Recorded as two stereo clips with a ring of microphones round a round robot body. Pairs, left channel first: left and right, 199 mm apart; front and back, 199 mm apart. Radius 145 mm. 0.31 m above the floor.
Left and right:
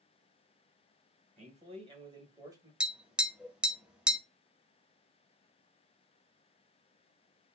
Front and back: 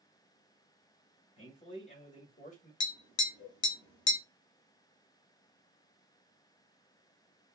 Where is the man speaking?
55° right, 1.6 m; by 2.7 s 20° right, 1.6 m.